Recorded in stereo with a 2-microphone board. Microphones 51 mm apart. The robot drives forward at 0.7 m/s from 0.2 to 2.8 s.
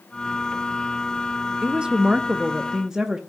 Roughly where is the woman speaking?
Centre.